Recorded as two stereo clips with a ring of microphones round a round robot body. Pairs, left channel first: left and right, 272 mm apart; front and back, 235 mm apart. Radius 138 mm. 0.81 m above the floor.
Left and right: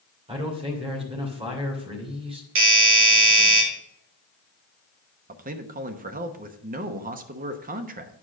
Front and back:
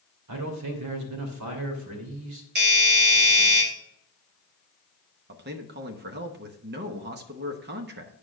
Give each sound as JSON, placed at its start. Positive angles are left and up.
{"t": 0.3, "sound": "a man speaking", "azimuth_deg": -160, "distance_m": 2.5}
{"t": 2.5, "sound": "a doorbell", "azimuth_deg": -130, "distance_m": 2.5}
{"t": 5.3, "sound": "a man speaking", "azimuth_deg": -145, "distance_m": 0.9}